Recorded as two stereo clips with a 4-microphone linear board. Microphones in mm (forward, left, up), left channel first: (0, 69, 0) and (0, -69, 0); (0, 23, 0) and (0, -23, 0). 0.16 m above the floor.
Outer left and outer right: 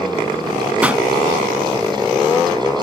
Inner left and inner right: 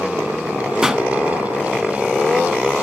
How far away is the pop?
About 0.7 m.